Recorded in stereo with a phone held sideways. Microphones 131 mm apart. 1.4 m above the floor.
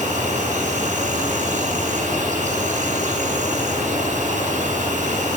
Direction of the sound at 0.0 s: 70° right (ahead or behind).